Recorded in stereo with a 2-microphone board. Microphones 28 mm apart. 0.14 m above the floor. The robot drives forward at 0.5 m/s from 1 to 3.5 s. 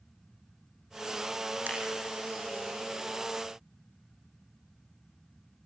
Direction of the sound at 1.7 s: 75° right (ahead or behind).